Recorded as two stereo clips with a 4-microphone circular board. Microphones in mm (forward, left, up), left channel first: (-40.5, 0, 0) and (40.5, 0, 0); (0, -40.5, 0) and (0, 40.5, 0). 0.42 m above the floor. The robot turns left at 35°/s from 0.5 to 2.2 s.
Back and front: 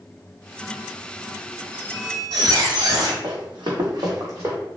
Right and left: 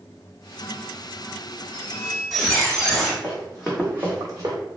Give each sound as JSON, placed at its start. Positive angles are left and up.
{"t": 1.7, "sound": "a squeak", "azimuth_deg": 15, "distance_m": 0.9}
{"t": 3.2, "sound": "running footsteps", "azimuth_deg": -15, "distance_m": 1.2}